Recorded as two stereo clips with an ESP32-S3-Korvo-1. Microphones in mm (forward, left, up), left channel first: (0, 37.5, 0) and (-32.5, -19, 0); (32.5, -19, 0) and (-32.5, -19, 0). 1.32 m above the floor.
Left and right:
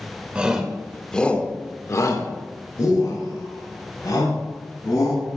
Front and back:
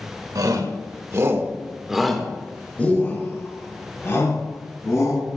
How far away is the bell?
I don't hear a bell.